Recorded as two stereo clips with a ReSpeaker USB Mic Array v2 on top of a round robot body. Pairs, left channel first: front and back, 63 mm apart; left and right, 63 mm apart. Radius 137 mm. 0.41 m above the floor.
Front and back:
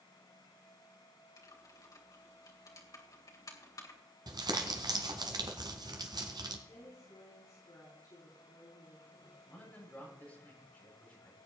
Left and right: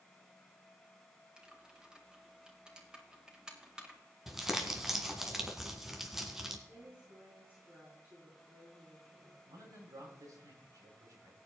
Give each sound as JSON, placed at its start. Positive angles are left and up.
{"t": 1.4, "sound": "typing on a keyboard", "azimuth_deg": -15, "distance_m": 3.0}
{"t": 4.3, "sound": "crumpling", "azimuth_deg": -175, "distance_m": 1.7}
{"t": 6.7, "sound": "a woman speaking", "azimuth_deg": -30, "distance_m": 5.5}
{"t": 9.5, "sound": "a man speaking", "azimuth_deg": -65, "distance_m": 7.5}